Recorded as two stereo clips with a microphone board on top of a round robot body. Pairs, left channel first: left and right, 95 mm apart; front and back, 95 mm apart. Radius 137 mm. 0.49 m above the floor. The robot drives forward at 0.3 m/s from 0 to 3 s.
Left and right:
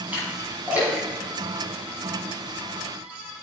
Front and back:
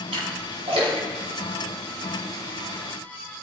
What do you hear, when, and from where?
0.1 s a splash: 165° right, 4.5 m